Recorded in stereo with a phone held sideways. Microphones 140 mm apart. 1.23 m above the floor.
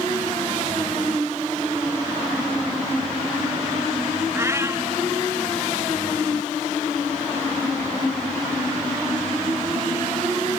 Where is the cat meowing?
20° right (ahead or behind).